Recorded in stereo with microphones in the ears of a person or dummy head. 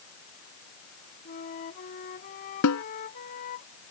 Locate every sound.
1.2 s a flute: 45° left (ahead or behind)
2.6 s a snare drum: 85° left